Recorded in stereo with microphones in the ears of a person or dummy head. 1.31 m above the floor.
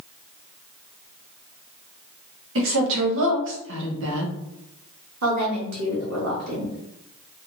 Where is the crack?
I don't hear a crack.